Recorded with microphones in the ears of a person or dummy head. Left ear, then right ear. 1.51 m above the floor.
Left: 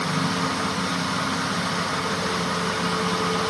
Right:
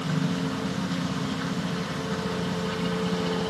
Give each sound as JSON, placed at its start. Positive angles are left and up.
{"t": 0.0, "sound": "a helicopter", "side_deg": 10}